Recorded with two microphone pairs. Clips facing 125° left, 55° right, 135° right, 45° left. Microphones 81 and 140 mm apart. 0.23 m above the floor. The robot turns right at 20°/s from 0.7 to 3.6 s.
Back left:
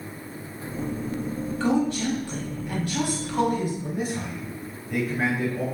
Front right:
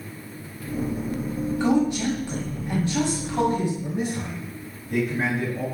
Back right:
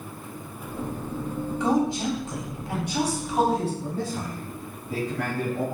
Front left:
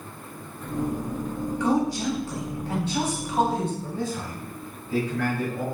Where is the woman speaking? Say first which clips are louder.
Front right 2 dB, even; 105° right, 1.3 m; by 3.7 s 65° right, 1.3 m.